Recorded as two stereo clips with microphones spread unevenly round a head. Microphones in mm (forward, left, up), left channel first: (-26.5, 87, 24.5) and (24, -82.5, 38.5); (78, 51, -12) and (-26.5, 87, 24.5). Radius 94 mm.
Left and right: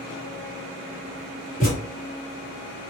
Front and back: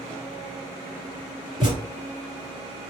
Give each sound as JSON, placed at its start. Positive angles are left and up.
{"t": 1.6, "sound": "a thud", "azimuth_deg": 150, "distance_m": 1.9}